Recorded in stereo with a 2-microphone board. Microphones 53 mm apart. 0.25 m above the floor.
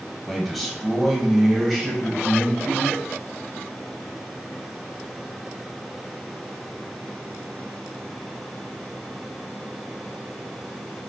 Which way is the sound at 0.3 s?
Centre (ahead or behind).